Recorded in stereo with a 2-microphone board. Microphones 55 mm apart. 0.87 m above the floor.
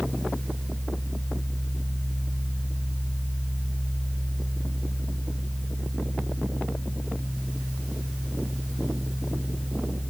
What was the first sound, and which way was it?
Only background noise.